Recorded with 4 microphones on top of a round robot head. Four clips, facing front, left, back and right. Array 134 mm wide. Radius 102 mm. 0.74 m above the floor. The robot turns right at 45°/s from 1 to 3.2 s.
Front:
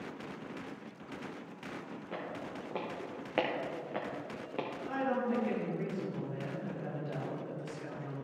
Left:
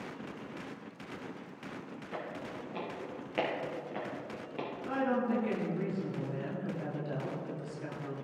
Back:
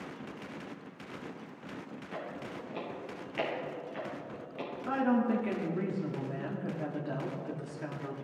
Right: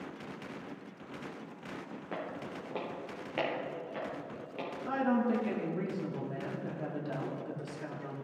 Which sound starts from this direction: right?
Footsteps, at 2.1 s.